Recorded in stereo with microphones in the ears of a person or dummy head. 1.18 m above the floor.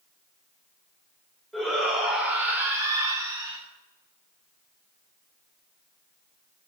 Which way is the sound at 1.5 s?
5° left (ahead or behind).